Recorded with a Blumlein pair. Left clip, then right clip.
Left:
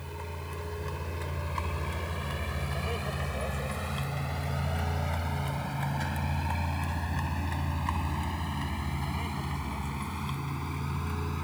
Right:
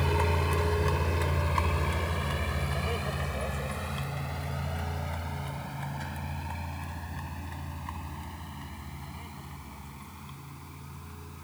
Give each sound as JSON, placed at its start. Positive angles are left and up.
{"t": 0.0, "sound": "a vehicle", "azimuth_deg": -35}